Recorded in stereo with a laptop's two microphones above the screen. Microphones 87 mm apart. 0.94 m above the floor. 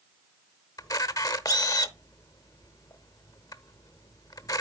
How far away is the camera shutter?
About 0.9 m.